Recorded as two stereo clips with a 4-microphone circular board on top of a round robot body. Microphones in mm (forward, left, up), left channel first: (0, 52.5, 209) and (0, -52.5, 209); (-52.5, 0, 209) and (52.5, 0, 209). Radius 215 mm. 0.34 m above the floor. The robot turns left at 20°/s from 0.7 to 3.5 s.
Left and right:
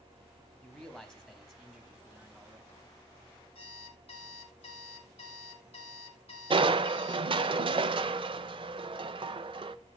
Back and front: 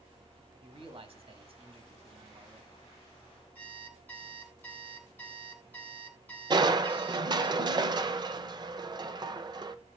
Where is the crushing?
50° right, 0.6 m.